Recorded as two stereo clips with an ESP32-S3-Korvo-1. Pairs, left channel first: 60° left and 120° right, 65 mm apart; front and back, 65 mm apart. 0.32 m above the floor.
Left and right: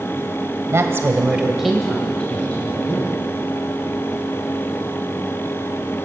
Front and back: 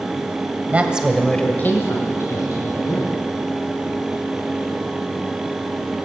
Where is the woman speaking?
125° right, 1.5 m; by 3.3 s 5° left, 3 m.